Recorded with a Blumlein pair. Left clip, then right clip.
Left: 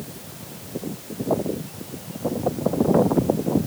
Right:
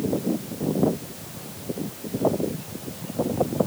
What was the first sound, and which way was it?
Only background noise.